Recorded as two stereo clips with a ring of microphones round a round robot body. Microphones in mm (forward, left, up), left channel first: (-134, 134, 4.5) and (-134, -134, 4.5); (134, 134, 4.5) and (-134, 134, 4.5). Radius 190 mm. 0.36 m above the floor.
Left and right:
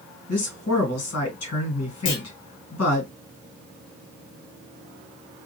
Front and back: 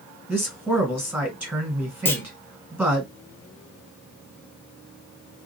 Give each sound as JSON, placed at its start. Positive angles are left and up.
{"t": 0.3, "sound": "a man speaking", "azimuth_deg": 100, "distance_m": 2.0}
{"t": 2.0, "sound": "a clunk", "azimuth_deg": 80, "distance_m": 0.7}